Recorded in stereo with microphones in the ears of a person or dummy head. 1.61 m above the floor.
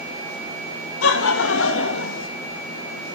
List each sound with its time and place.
1.0 s laughter: 80° left, 2 m; by 2.3 s 70° left (ahead or behind), 2.5 m